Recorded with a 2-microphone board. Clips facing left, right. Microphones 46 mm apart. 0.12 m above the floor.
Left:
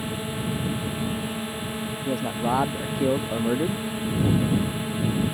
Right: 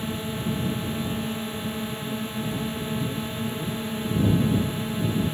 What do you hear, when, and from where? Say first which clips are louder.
0.0 s a drone: even; 5° left (ahead or behind)
2.0 s a man speaking: left 5 dB; 70° left (ahead or behind)